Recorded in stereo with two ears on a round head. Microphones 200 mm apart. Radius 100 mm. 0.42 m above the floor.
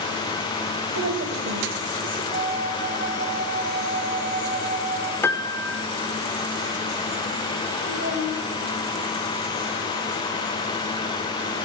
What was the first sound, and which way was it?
A woman speaking, 55° right (ahead or behind).